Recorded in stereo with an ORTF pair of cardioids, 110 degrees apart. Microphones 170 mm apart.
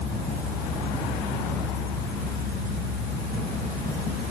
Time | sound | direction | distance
0.0 | a fan | 65° left | 7.5 m